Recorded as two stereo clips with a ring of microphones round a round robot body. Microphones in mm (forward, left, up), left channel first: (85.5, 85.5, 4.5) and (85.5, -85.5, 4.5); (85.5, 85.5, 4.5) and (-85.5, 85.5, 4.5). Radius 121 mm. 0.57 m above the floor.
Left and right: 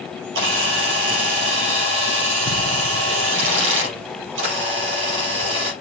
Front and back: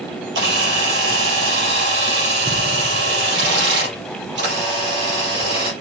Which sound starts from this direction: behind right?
A camera shutter, at 0.3 s.